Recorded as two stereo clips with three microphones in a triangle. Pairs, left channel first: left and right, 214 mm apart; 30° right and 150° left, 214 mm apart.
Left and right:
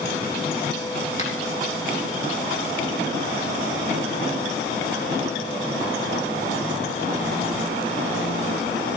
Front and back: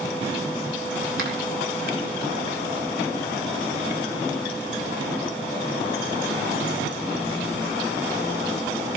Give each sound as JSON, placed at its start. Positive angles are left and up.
{"t": 1.2, "sound": "a finger snap", "azimuth_deg": 140, "distance_m": 4.0}